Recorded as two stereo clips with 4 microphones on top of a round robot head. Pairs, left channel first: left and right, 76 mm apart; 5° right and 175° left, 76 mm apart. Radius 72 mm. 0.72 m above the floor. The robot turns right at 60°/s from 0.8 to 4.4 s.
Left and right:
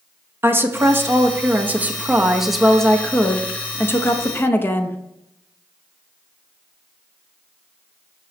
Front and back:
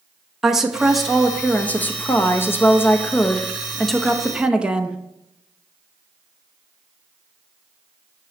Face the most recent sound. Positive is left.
turn(degrees=110)